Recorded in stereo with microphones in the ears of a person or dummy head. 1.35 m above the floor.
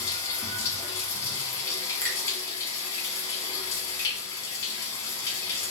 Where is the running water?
25° left (ahead or behind), 1.0 m.